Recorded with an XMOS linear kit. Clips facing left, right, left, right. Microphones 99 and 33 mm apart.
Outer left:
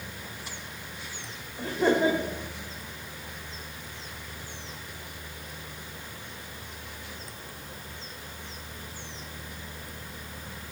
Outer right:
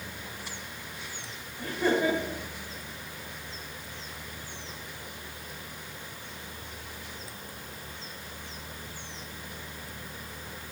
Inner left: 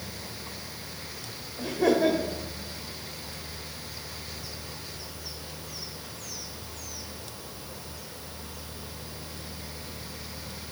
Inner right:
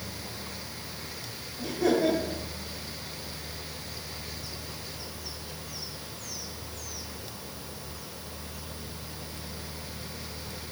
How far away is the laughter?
About 2 m.